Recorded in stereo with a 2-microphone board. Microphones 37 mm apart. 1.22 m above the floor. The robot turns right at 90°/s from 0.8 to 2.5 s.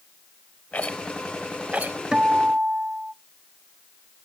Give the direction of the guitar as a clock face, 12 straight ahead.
5 o'clock.